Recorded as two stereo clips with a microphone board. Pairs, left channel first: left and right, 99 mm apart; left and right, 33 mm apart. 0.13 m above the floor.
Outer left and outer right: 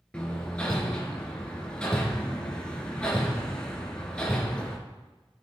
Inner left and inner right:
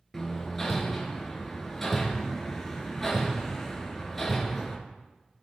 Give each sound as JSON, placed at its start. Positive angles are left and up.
{"t": 0.1, "sound": "hammering", "side_deg": 10, "distance_m": 2.0}